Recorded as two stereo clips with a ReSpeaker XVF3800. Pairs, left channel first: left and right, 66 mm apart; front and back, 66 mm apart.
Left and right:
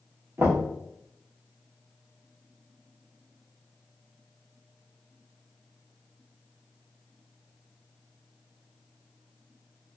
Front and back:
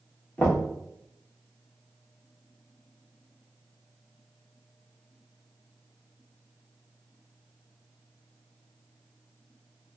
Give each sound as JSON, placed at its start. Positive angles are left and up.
{"t": 0.4, "sound": "knocking", "azimuth_deg": -60, "distance_m": 1.2}